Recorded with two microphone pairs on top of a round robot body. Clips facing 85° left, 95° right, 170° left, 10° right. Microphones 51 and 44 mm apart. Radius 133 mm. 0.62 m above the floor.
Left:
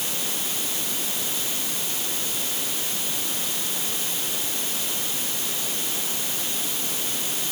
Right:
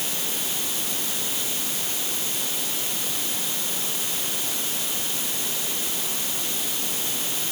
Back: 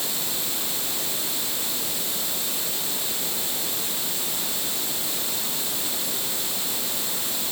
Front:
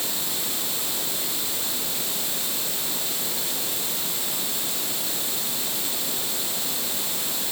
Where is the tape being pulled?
I don't hear tape being pulled.